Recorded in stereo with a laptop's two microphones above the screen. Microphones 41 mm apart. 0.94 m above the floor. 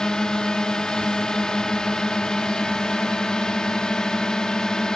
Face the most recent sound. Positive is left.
turn(degrees=15)  # may be behind; listen again after turning